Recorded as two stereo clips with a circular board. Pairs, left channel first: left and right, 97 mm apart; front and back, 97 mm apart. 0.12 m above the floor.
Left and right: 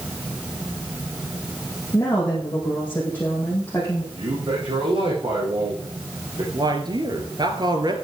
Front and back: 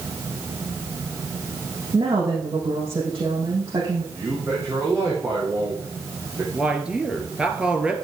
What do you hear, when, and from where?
1.9 s a woman speaking: 155° left, 5.5 m
4.1 s a man speaking: 125° right, 6.5 m
6.5 s a man speaking: 105° right, 2.5 m